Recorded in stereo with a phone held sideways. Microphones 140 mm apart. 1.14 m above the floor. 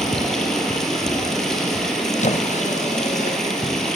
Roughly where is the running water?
Centre.